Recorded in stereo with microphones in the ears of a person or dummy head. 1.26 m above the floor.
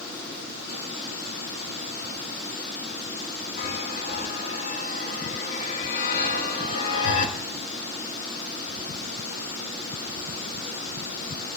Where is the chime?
60° left (ahead or behind), 2.5 m.